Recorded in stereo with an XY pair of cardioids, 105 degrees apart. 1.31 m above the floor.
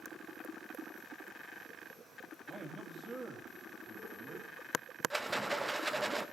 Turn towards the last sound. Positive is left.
turn(degrees=-10)